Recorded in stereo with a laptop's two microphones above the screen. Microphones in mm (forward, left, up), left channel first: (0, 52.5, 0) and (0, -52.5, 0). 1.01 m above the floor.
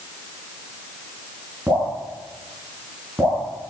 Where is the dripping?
20° right (ahead or behind), 5 m.